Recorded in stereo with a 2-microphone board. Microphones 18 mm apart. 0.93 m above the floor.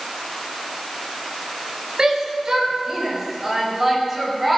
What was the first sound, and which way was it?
A shout, 40° right (ahead or behind).